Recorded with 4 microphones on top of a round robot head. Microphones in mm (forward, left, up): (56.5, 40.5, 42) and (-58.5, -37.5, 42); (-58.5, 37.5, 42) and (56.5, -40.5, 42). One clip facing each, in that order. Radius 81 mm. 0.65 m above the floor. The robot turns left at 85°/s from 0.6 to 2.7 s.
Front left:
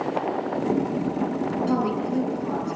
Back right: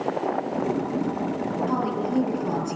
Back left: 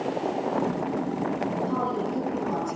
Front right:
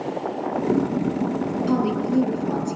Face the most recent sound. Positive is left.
turn(degrees=-105)